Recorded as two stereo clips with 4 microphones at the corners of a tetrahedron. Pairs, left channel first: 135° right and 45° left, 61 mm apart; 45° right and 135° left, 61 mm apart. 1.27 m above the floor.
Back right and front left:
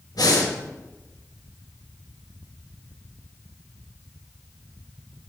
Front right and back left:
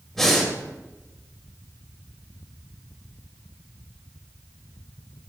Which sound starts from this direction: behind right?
Breathing, at 0.1 s.